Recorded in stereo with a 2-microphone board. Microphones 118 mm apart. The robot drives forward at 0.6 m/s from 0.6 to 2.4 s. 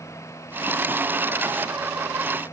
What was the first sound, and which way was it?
Only background noise.